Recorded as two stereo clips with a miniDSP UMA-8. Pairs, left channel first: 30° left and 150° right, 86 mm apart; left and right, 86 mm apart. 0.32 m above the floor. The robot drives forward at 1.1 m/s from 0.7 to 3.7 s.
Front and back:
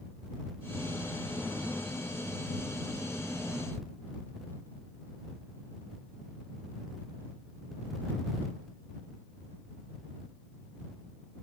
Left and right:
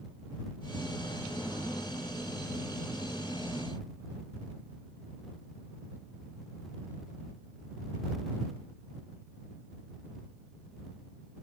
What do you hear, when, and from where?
Only background noise.